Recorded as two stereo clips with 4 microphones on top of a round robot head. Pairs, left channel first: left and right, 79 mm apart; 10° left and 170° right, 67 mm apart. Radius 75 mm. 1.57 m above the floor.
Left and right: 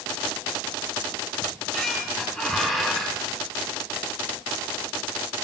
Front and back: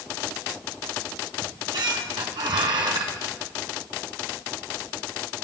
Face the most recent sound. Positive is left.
turn(degrees=170)